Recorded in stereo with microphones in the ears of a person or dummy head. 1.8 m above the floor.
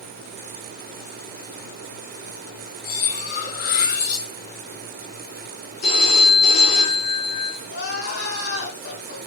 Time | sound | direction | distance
2.8 | cutlery clinking | 45° left (ahead or behind) | 1.7 m
5.8 | a phone ringing | 50° left (ahead or behind) | 2.5 m
7.7 | crying | 60° left (ahead or behind) | 5 m